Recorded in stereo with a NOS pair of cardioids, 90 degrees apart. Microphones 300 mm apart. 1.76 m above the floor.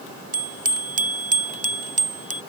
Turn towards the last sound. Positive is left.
turn(degrees=-25)